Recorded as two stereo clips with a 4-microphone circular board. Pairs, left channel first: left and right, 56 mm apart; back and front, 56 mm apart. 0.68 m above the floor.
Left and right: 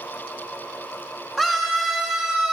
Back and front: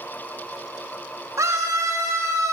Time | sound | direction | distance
1.4 | a scream | straight ahead | 2.5 m